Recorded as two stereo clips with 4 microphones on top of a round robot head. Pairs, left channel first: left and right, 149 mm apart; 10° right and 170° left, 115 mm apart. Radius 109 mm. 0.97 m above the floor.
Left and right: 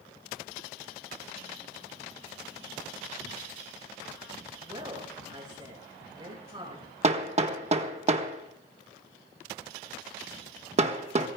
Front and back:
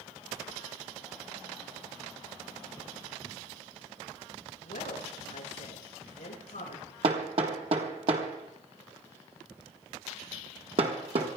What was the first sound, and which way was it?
A woman speaking, 25° right.